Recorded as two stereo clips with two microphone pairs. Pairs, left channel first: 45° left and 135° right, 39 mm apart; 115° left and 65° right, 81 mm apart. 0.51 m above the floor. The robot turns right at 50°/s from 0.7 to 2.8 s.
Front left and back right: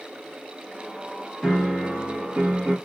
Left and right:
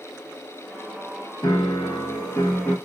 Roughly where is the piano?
Behind left.